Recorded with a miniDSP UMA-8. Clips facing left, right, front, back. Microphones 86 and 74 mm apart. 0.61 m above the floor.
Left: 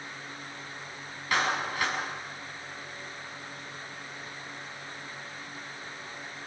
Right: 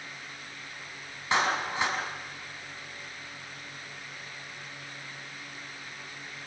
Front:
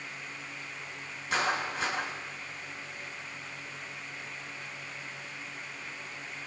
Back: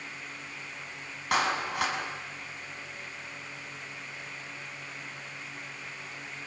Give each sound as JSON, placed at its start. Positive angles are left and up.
{"t": 1.3, "sound": "a clap", "azimuth_deg": -155, "distance_m": 5.5}